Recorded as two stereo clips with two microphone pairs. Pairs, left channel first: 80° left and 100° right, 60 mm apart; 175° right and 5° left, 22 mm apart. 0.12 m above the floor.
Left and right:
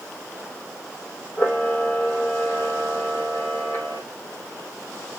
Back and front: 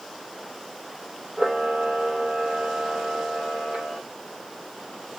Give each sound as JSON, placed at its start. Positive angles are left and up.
{"t": 1.4, "sound": "a camera shutter", "azimuth_deg": 30, "distance_m": 3.5}